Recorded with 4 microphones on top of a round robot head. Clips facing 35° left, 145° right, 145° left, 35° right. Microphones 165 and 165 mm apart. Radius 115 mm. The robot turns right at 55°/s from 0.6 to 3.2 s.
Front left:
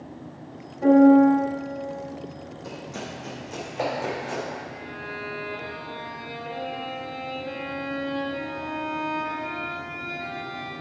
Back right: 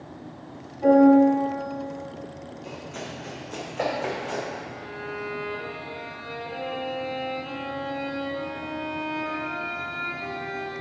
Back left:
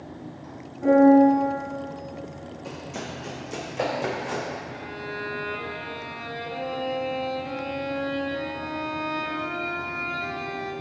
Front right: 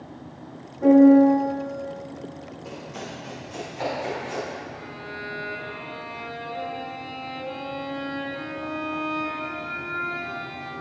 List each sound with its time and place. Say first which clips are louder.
0.8 s a piano: front left 1 dB, front right 2 dB; 15° right, 3 m; by 1.4 s 15° left, 3 m
2.6 s running footsteps: front left 2 dB, back left 2 dB; 60° left, 2.5 m; by 4.5 s 120° left, 4 m
4.7 s a violin: back right 2 dB, back left 3 dB; 95° left, 2 m